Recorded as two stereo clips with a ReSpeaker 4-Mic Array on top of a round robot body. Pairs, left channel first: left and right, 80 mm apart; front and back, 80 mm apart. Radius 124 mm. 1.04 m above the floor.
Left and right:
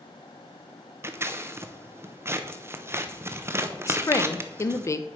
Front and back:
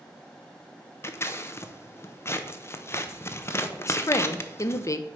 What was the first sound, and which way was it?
Scissors, 45° right.